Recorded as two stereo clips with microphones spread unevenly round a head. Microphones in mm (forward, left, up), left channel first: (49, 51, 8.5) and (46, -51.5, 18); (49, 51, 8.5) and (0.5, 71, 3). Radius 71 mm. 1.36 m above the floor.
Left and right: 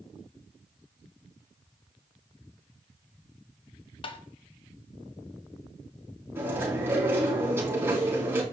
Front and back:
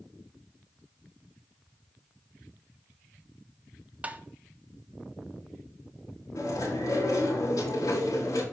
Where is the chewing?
25° right, 5 m.